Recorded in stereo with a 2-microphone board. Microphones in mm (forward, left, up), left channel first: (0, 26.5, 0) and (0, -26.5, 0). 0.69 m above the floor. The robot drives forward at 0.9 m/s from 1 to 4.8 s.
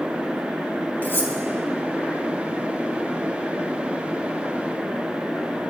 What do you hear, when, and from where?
1.0 s cutlery clinking: 40° left (ahead or behind), 2 m; by 1.3 s 45° left (ahead or behind), 1.8 m